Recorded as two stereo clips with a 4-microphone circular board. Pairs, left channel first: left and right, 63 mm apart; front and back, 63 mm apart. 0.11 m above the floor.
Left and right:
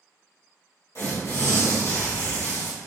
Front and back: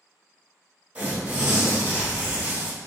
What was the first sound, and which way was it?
Tearing paper, 110° left.